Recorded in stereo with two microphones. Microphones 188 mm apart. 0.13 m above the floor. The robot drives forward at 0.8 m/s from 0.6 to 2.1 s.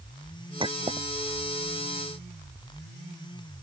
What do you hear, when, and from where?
0.6 s a clink: 25° right (ahead or behind); by 1.1 s 30° right (ahead or behind)